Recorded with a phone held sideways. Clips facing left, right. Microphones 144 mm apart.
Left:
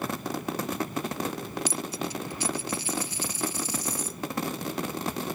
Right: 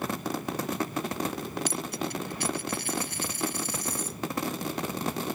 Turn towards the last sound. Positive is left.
turn(degrees=-65)  # may be behind; listen again after turning